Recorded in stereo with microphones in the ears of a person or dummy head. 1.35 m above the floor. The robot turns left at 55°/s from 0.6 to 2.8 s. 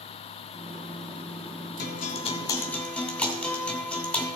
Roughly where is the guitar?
Ahead left.